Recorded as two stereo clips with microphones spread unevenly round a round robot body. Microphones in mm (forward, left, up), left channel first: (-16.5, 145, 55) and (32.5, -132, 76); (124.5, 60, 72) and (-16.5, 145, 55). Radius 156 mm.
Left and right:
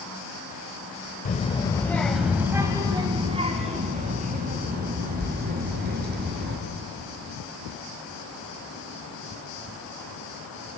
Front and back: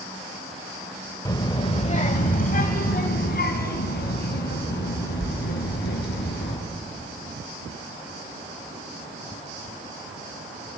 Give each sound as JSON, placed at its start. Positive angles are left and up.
{"t": 1.2, "sound": "a child speaking", "azimuth_deg": 40, "distance_m": 1.5}